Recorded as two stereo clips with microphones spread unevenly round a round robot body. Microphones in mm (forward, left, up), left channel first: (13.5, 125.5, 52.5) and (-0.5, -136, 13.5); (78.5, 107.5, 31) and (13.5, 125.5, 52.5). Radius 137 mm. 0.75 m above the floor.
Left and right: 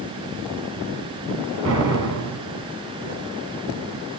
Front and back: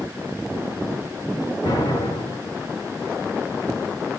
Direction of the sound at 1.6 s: 50° right.